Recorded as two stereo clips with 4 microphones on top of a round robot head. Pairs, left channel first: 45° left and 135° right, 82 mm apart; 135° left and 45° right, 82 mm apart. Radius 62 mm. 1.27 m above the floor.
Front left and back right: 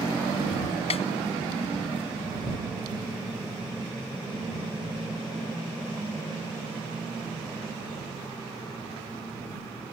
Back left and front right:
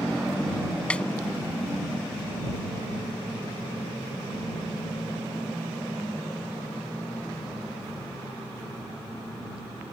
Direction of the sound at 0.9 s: 60° left.